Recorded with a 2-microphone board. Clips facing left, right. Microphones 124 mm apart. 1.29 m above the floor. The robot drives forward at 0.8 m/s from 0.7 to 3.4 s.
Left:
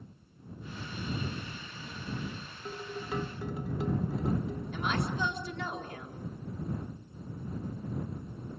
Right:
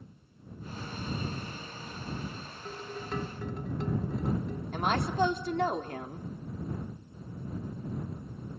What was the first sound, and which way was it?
Dishes clattering, 10° left (ahead or behind).